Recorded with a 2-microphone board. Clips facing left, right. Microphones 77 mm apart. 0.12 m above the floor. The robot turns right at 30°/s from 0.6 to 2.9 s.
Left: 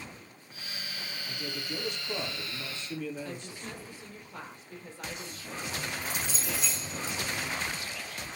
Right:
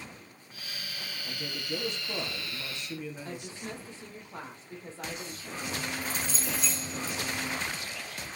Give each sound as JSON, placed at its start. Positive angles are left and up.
{"t": 1.2, "sound": "a man speaking", "azimuth_deg": -65, "distance_m": 3.0}
{"t": 3.2, "sound": "a woman speaking", "side_deg": -30, "distance_m": 3.5}
{"t": 5.6, "sound": "keys jangling", "side_deg": -35, "distance_m": 5.5}